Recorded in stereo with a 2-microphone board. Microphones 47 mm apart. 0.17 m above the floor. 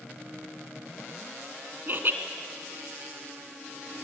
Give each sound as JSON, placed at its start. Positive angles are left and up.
{"t": 1.9, "sound": "laughter", "side_deg": -45, "distance_m": 1.9}